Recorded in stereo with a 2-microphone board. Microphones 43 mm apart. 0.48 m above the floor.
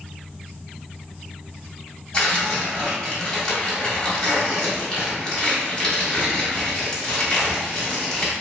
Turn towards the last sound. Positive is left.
turn(degrees=25)  # may be behind; listen again after turning